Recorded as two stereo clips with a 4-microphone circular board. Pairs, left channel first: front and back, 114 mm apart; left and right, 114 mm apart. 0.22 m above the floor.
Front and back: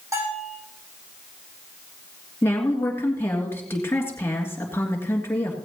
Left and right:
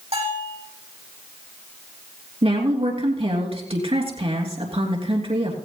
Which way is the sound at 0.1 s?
115° right.